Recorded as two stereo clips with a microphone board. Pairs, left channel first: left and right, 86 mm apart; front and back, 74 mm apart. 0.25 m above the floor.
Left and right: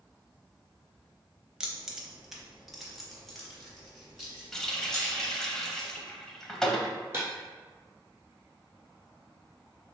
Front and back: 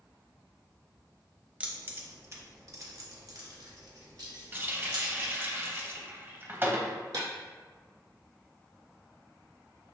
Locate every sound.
1.6 s keys jangling: 155° right, 0.7 m; by 5.3 s 175° left, 2.5 m
4.5 s a running tap: 170° left, 0.7 m
7.1 s breaking glass: 150° right, 1.4 m